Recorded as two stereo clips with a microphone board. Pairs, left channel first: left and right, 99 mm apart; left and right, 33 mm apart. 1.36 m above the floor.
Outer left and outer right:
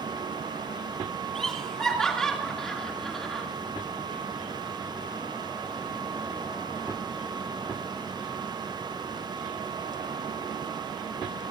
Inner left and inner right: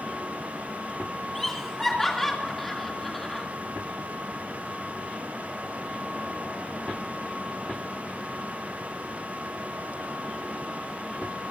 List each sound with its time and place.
1.4 s laughter: 5° left (ahead or behind), 2.5 m